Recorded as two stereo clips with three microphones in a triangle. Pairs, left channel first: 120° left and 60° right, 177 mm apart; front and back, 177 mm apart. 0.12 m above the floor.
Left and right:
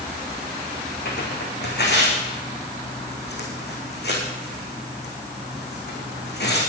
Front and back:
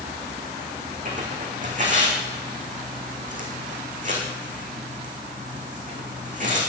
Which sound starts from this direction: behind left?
Tearing paper, at 1.1 s.